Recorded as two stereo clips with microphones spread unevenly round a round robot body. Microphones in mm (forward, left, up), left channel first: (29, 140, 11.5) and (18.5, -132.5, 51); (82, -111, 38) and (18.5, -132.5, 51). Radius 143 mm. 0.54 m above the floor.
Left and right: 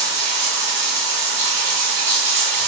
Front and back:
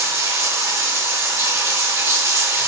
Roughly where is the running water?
Behind right.